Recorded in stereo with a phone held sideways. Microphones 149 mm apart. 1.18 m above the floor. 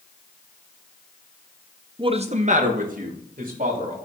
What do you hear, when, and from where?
2.0 s a man speaking: 30° right (ahead or behind), 0.7 m; by 4.0 s 70° right (ahead or behind), 3.5 m